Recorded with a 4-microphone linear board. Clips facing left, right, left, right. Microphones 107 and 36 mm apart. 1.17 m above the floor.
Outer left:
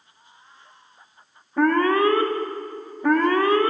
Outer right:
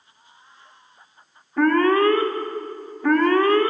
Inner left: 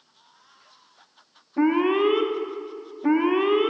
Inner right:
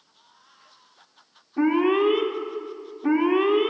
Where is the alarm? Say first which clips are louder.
Outer right 2 dB, even; 10° left (ahead or behind), 1.0 m.